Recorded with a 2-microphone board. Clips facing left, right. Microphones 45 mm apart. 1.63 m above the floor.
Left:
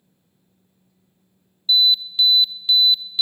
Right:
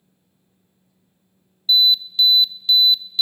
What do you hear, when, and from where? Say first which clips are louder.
1.7 s an alarm: right 1 dB; 15° left (ahead or behind), 1.1 m